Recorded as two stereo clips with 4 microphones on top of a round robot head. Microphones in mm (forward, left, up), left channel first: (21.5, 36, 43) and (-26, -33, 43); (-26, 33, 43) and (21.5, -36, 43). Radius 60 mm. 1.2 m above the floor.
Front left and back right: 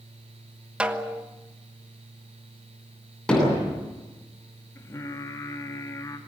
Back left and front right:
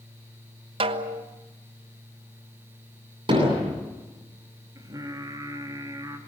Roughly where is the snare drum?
Ahead right.